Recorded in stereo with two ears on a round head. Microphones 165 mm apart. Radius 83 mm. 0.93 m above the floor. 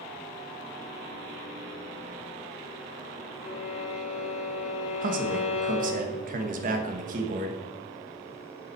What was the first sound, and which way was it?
A violin, 40° left (ahead or behind).